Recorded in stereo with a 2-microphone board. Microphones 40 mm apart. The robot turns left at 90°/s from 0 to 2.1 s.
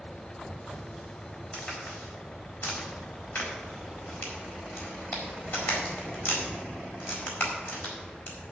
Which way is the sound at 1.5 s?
20° left (ahead or behind).